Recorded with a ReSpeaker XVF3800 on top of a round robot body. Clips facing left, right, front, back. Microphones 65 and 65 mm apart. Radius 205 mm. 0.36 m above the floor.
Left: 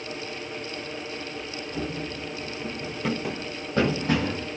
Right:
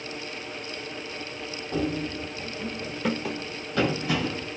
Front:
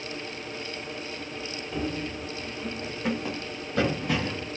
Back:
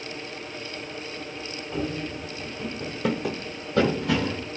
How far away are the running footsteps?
About 0.7 m.